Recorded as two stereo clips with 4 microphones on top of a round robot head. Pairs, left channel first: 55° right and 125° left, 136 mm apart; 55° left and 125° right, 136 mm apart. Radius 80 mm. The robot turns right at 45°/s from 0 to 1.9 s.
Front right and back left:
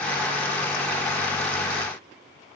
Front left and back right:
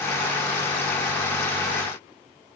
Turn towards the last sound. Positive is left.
No sound to turn to.